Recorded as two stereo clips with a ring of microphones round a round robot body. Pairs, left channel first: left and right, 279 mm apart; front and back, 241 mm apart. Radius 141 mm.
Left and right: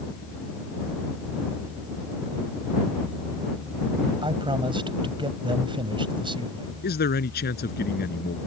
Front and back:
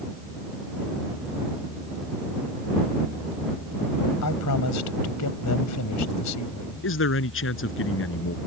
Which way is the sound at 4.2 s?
15° right.